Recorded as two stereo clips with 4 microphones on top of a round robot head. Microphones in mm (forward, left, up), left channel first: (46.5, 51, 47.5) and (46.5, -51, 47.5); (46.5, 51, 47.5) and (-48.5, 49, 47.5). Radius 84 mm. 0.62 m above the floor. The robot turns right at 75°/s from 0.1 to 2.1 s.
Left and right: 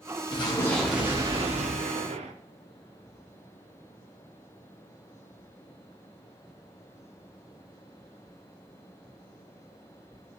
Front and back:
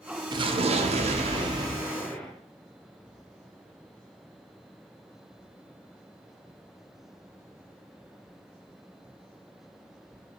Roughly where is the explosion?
Behind left.